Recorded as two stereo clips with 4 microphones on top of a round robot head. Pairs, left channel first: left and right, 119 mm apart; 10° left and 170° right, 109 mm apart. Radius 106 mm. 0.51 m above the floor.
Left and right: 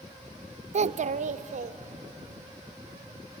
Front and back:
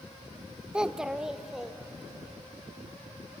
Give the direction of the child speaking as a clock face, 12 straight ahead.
3 o'clock.